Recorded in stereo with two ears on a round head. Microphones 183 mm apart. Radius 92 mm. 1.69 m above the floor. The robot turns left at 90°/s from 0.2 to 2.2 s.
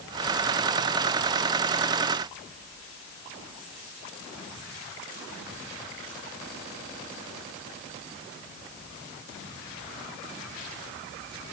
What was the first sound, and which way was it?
Only background noise.